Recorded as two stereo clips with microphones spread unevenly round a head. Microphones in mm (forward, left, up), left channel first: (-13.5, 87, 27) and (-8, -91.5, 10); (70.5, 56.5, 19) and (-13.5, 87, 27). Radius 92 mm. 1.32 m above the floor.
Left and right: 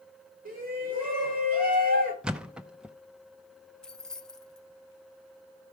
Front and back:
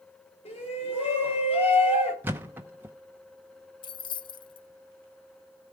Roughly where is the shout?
Ahead right.